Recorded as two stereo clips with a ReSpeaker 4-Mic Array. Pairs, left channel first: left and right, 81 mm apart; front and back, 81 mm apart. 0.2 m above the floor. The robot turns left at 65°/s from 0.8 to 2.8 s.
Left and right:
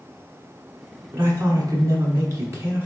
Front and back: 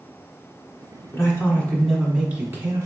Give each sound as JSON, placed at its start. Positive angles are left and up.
{"t": 1.1, "sound": "a man speaking", "azimuth_deg": -35, "distance_m": 1.4}